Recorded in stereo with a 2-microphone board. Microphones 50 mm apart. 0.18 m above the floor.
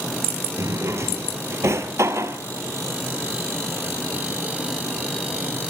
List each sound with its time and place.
0.6 s a drawer: 65° right (ahead or behind), 1.0 m